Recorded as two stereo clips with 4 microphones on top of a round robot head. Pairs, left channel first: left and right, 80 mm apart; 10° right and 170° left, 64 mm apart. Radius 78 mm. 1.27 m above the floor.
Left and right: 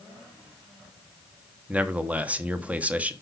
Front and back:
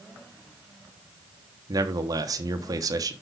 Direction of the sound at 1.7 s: 165° right.